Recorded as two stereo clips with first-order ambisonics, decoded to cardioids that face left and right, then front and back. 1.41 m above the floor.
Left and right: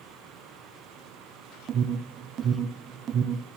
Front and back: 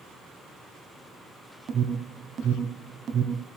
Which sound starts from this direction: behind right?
An alarm, at 1.7 s.